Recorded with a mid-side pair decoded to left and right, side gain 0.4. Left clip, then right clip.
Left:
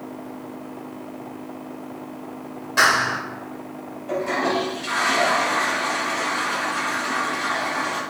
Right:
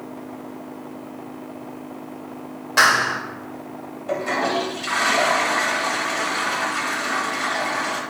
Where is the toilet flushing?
50° right, 1.5 m.